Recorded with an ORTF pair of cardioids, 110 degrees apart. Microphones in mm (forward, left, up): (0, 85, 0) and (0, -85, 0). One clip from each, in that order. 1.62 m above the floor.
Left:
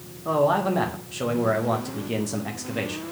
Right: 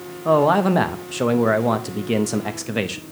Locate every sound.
0.2 s a man speaking: 35° right, 0.7 m